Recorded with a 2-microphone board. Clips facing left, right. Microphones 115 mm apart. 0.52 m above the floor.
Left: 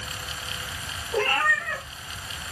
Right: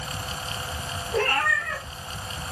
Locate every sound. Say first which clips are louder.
1.1 s a cat meowing: even; 20° left (ahead or behind), 4.5 m